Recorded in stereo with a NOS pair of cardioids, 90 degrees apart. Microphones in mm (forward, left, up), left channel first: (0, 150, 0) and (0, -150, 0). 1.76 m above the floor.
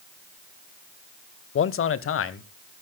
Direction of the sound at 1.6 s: 40° left.